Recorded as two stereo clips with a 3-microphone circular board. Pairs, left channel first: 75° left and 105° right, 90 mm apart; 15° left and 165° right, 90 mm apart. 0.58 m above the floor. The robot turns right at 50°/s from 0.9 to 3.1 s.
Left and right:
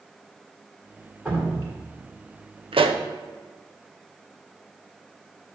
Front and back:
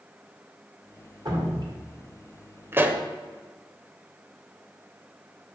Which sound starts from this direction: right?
A pop, at 2.7 s.